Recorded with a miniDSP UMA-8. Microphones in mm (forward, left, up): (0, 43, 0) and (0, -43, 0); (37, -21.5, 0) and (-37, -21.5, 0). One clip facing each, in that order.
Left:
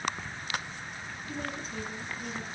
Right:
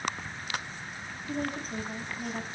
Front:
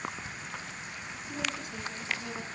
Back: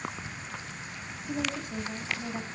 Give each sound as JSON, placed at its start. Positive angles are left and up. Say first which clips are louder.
{"t": 1.3, "sound": "a woman speaking", "louder": "right 5 dB, back 4 dB", "azimuth_deg": -135, "distance_m": 3.5}